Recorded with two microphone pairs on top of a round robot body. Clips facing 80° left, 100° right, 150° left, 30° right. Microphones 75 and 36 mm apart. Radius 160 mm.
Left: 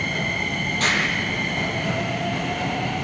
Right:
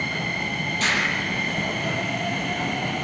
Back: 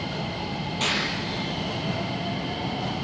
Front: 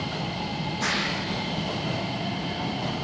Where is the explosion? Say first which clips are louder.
Left 1 dB, back 1 dB; 125° left, 6.5 m.